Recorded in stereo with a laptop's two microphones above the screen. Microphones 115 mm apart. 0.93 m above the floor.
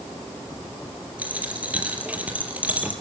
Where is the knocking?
I don't hear knocking.